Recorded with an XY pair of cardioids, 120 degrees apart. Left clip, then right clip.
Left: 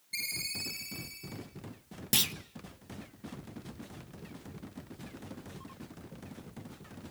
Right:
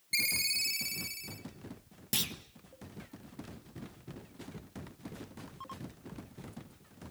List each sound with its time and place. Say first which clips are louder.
0.1 s a ringtone: right 5 dB; 55° right, 3.5 m
2.1 s a clunk: left 5 dB; 25° left, 1.2 m